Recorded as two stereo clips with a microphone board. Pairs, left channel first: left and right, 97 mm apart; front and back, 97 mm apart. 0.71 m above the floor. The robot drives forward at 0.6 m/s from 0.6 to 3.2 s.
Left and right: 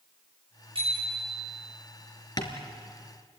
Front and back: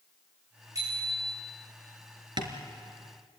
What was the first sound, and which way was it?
A bicycle bell, 125° right.